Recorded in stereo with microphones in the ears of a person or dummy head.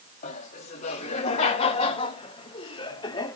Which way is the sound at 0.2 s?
40° left (ahead or behind).